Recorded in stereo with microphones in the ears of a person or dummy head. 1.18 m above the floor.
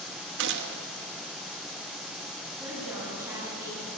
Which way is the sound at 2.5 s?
15° right (ahead or behind).